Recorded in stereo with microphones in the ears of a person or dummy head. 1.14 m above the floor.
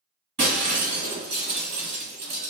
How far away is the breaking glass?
About 1.6 m.